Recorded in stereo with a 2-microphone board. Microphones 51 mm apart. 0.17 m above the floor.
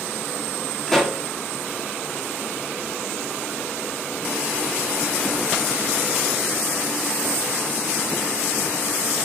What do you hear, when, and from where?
0.9 s a pop: 5° left (ahead or behind), 0.7 m